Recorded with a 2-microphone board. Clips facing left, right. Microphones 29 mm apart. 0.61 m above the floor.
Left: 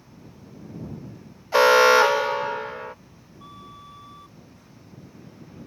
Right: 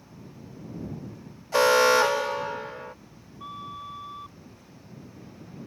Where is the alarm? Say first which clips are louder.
Left 4 dB; 20° left (ahead or behind).